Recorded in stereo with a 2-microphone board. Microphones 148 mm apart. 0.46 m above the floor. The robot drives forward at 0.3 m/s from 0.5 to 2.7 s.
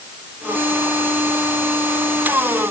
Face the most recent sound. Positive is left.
No sound to turn to.